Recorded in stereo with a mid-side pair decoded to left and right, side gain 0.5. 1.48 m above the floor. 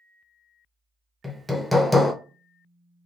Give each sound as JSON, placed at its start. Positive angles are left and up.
{"t": 1.2, "sound": "hammering", "azimuth_deg": 5, "distance_m": 0.7}